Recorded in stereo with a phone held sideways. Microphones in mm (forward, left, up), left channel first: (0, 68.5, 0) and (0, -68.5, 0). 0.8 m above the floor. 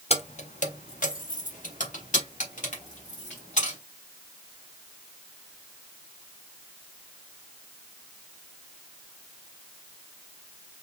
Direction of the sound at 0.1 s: 50° left (ahead or behind).